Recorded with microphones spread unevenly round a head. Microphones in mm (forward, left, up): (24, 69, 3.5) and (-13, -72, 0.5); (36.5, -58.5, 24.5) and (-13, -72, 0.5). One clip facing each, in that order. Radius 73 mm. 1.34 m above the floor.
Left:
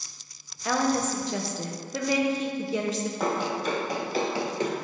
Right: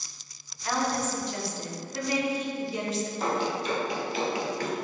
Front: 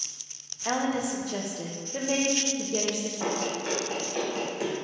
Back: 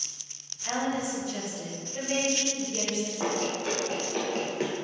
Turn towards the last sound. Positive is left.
turn(degrees=125)